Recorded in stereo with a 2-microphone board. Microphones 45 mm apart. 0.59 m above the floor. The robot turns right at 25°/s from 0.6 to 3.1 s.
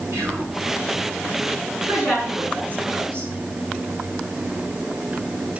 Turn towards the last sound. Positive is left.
turn(degrees=-55)  # may be behind; listen again after turning